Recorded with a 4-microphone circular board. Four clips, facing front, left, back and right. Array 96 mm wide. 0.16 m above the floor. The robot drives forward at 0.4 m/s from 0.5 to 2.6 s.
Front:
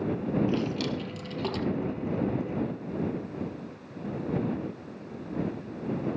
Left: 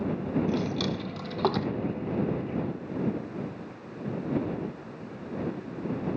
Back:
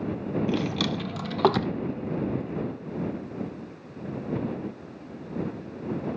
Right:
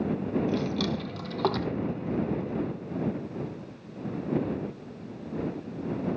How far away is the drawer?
About 1.0 m.